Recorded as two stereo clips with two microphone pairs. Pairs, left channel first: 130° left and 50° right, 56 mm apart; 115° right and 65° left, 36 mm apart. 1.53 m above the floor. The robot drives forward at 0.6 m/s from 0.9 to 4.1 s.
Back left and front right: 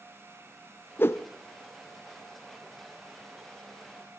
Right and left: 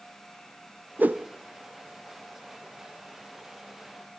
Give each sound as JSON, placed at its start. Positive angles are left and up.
{"t": 1.0, "sound": "a whoosh", "azimuth_deg": 85, "distance_m": 0.5}